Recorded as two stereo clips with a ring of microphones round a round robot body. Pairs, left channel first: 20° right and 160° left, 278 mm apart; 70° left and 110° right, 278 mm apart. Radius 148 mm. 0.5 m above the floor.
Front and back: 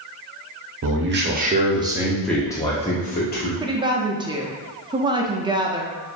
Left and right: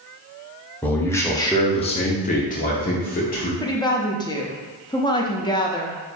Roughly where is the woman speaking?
Behind left.